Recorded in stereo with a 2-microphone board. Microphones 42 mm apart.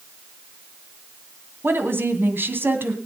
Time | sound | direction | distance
1.6 | a woman speaking | 60° right (ahead or behind) | 2.5 m